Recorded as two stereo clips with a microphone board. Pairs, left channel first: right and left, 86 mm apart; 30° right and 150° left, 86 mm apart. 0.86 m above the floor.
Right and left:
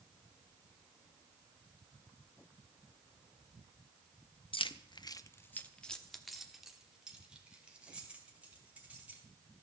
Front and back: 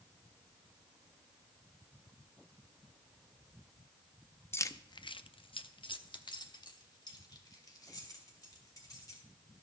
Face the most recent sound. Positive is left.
turn(degrees=15)